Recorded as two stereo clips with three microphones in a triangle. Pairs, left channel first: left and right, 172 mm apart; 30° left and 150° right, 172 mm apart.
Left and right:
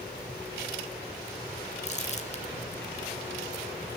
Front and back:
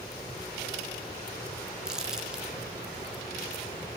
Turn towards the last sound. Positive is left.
turn(degrees=125)